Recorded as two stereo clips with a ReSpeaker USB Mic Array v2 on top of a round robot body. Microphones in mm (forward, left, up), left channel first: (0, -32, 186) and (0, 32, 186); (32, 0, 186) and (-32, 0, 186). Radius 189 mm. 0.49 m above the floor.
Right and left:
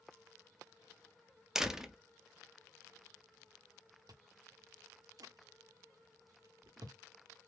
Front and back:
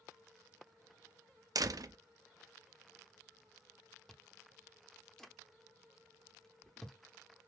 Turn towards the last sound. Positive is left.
turn(degrees=80)